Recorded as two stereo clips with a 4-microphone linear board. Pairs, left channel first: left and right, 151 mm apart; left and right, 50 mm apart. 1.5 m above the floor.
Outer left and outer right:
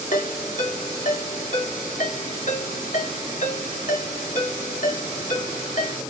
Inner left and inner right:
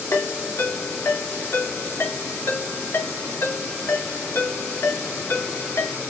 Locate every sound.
0.1 s a ringtone: 60° left (ahead or behind), 2.5 m